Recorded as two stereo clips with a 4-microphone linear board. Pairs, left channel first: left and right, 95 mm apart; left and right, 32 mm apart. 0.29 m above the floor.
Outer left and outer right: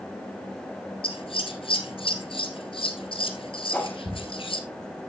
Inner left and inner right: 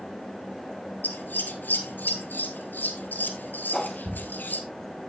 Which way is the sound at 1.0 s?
70° left (ahead or behind).